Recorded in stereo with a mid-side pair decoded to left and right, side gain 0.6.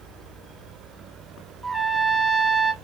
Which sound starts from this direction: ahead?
A trumpet, at 1.6 s.